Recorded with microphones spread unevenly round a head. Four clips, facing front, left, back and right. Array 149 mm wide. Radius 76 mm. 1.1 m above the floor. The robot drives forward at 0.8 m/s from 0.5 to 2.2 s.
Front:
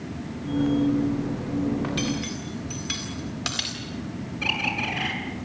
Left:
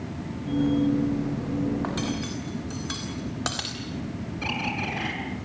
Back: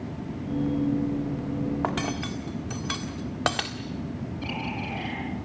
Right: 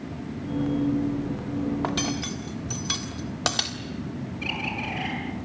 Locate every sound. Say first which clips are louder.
1.8 s cutlery clinking: right 1 dB, front 1 dB; 155° right, 1.5 m; by 3.8 s 160° right, 1.7 m
4.4 s a bird: left 3 dB, front 5 dB; 30° left, 6.5 m